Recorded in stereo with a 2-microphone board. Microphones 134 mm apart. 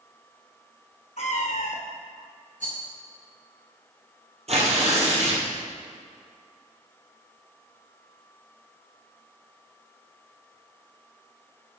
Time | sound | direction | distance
1.2 | a cat meowing | 65° left (ahead or behind) | 1.5 m
2.6 | a rattle | 80° right | 3 m
4.5 | tearing paper | 50° right (ahead or behind) | 2.5 m